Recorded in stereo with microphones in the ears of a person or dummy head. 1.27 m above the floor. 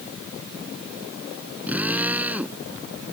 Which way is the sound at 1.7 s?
10° right (ahead or behind).